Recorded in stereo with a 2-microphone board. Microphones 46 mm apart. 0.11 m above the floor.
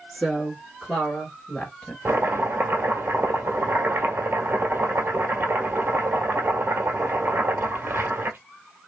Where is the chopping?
50° right (ahead or behind), 1.2 m.